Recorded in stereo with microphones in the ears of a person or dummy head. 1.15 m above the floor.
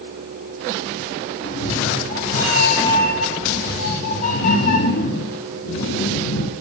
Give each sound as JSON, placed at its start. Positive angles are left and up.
{"t": 1.4, "sound": "a cat meowing", "side_deg": 45, "distance_m": 6.0}